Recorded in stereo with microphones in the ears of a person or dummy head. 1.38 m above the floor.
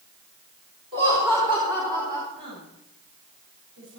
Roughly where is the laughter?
Right.